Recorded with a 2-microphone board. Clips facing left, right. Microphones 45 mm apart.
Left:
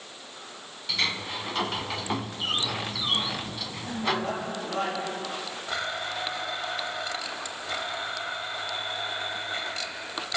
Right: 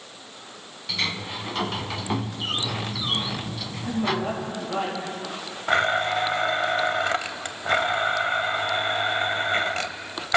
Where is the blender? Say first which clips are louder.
Right 11 dB; 55° right (ahead or behind), 1.0 m.